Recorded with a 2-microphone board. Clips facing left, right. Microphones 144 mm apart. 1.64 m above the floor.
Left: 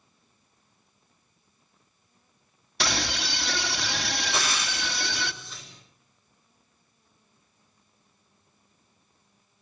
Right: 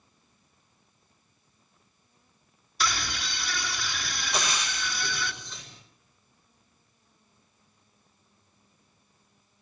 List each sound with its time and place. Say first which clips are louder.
2.8 s a scream: left 2 dB; 75° left (ahead or behind), 2.5 m
4.3 s frying: right 3 dB; 5° left (ahead or behind), 8.5 m